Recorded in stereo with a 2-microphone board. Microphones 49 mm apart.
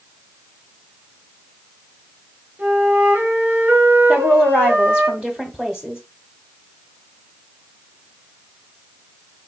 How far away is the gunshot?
I don't hear a gunshot.